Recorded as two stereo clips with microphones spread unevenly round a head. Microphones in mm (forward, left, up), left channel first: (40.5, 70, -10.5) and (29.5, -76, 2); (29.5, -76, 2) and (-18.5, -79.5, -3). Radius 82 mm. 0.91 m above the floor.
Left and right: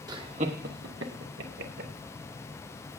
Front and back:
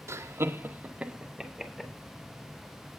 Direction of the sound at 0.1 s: 165° right.